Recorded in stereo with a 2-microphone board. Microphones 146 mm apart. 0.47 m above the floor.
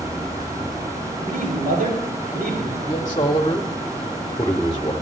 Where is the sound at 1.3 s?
85° right, 7 m.